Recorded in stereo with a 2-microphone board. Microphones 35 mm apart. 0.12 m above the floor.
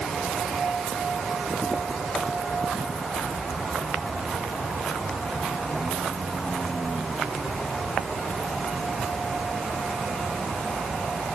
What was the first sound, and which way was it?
Only background noise.